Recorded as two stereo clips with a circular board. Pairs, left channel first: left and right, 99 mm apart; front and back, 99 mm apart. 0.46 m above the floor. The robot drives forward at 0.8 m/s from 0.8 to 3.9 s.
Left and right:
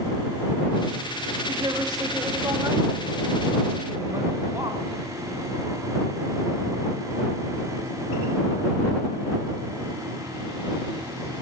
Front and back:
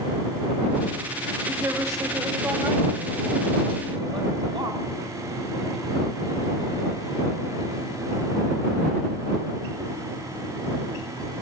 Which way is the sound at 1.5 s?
120° right.